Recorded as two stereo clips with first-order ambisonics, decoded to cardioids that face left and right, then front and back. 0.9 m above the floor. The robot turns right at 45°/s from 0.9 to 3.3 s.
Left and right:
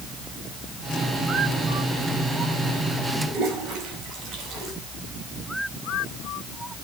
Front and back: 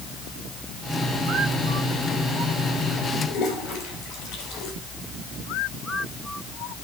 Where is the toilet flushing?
45° right, 4.5 m.